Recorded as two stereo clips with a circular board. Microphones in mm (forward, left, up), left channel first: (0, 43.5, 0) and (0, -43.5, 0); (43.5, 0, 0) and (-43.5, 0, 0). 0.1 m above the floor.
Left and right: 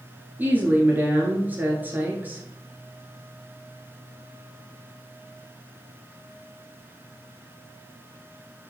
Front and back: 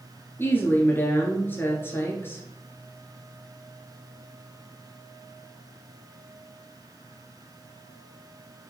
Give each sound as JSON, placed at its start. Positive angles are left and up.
{"t": 0.4, "sound": "a woman speaking", "azimuth_deg": -40, "distance_m": 1.3}